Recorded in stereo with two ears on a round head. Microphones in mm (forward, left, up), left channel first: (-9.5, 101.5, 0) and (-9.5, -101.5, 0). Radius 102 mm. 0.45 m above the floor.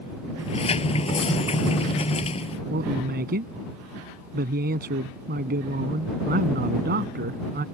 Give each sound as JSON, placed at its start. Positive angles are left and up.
{"t": 0.4, "sound": "a sliding door", "side_deg": 25}
{"t": 2.7, "sound": "a man speaking", "side_deg": -45}